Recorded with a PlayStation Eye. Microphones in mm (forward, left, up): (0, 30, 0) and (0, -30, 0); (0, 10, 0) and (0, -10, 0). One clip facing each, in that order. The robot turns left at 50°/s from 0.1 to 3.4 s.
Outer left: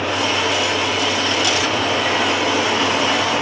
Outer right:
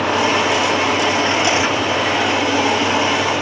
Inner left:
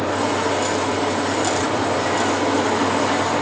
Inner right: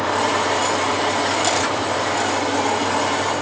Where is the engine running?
80° right, 3 m; by 3.4 s 115° left, 3 m.